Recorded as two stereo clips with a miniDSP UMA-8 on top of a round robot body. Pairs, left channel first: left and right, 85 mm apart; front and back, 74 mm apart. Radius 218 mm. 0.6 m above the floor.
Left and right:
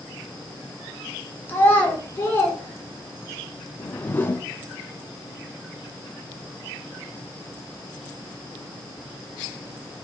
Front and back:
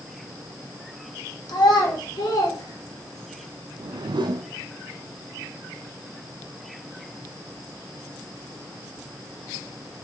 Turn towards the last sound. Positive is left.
turn(degrees=160)